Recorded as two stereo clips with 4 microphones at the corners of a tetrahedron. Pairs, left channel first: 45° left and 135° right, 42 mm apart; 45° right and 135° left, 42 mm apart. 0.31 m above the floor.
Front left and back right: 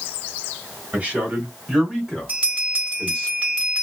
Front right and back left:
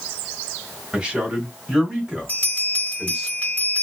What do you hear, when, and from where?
0.9 s a man speaking: 165° right, 1.9 m; by 3.3 s 65° left, 1.6 m
2.3 s a bell: 85° right, 1.5 m